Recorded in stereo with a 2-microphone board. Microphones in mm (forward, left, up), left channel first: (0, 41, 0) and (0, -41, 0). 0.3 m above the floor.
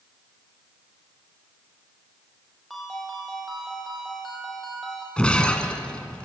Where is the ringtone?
5° left (ahead or behind), 5 m.